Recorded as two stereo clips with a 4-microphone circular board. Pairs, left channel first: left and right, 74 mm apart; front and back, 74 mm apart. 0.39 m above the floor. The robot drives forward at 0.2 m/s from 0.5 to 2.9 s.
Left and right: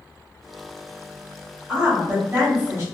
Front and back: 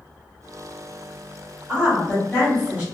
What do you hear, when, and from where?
1.7 s a woman speaking: 120° right, 1.4 m; by 2.8 s 135° right, 1.4 m